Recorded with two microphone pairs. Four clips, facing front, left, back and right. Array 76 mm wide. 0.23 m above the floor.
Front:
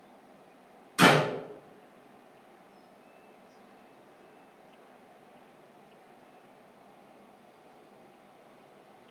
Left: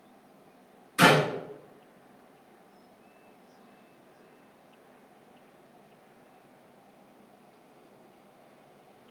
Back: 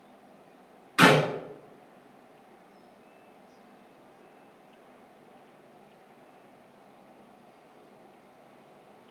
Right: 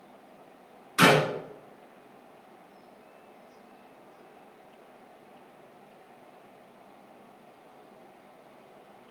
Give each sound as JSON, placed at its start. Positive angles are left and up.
{"t": 1.0, "sound": "a clap", "azimuth_deg": -150, "distance_m": 1.6}